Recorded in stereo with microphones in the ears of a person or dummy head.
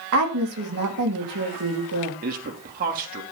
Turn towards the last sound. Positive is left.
turn(degrees=-50)  # may be behind; listen again after turning